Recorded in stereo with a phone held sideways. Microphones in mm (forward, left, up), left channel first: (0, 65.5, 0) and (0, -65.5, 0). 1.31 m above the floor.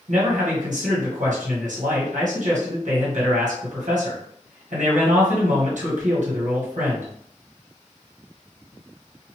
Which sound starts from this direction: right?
A man speaking, at 0.1 s.